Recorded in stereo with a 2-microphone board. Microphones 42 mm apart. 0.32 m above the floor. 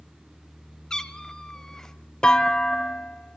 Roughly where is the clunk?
Centre.